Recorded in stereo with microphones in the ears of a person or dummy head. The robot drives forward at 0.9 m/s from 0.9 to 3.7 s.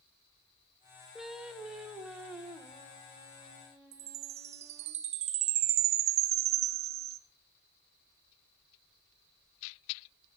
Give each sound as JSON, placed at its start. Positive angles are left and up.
{"t": 1.1, "sound": "singing", "side_deg": 5, "distance_m": 0.5}
{"t": 3.9, "sound": "a chime", "side_deg": -40, "distance_m": 1.0}